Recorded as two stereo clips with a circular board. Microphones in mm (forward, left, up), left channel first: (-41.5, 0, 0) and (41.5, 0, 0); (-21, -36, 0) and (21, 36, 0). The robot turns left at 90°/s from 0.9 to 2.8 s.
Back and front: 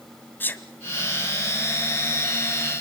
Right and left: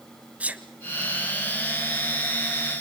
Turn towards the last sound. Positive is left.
turn(degrees=-45)